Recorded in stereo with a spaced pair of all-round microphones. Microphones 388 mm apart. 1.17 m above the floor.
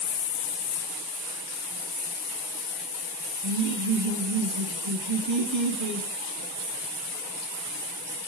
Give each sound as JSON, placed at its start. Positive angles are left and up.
{"t": 3.4, "sound": "laughter", "side_deg": -45, "distance_m": 1.4}